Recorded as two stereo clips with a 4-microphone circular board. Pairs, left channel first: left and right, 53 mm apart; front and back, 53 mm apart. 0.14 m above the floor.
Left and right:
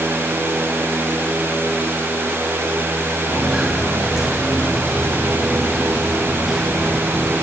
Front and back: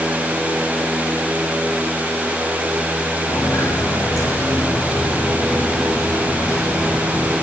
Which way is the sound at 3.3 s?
5° right.